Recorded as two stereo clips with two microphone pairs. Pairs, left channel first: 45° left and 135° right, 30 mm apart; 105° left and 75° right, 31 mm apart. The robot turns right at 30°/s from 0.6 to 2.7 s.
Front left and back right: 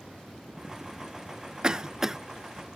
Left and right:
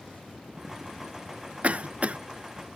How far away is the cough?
About 0.5 m.